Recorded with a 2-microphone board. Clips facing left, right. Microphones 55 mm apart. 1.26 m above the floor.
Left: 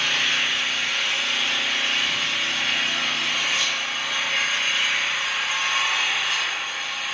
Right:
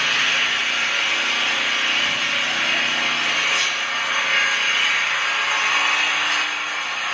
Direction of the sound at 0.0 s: 65° right (ahead or behind).